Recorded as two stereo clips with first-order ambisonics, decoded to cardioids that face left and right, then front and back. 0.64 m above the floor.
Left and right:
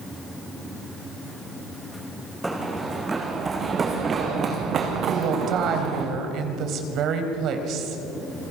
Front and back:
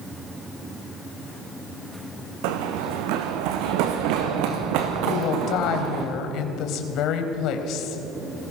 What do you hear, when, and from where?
2.4 s running footsteps: 175° right, 3 m; by 6.0 s 140° right, 3.5 m
5.0 s a woman speaking: 40° right, 3 m